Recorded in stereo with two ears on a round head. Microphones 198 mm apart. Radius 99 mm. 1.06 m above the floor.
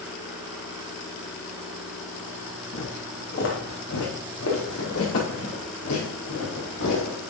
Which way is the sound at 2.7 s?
50° left (ahead or behind).